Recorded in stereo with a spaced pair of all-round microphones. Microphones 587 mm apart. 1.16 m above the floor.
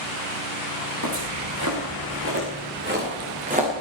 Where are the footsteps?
30° right (ahead or behind), 5.5 m; by 3.7 s 10° right (ahead or behind), 5.5 m.